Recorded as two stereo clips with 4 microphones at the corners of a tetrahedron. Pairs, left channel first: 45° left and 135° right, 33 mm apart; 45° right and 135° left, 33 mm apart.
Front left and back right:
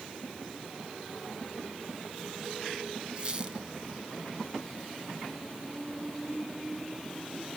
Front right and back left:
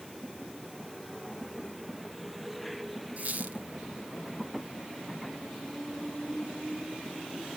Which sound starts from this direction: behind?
A squeak, at 3.2 s.